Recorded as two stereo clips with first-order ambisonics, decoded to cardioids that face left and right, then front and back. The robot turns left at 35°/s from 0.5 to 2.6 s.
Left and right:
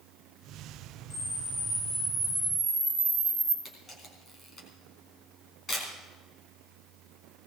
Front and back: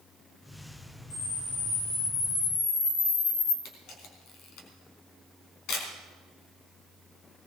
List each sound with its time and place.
1.1 s a camera shutter: 50° left, 8 m; by 3.5 s 5° right, 8 m
3.6 s a camera shutter: 25° left, 3.5 m